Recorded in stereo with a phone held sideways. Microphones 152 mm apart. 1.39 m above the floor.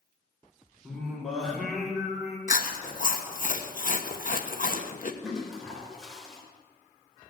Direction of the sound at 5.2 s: Centre (ahead or behind).